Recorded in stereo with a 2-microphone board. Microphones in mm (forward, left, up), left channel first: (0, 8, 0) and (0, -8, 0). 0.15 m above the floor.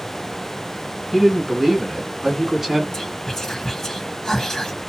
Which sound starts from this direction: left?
Whispering, at 2.9 s.